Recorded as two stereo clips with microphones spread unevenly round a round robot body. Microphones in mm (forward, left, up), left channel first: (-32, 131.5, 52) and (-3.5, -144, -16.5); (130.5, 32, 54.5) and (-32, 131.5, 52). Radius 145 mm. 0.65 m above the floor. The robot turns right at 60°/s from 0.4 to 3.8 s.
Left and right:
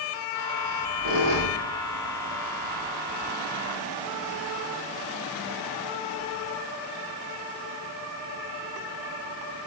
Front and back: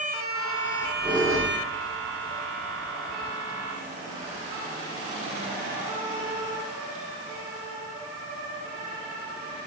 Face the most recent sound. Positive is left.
turn(degrees=30)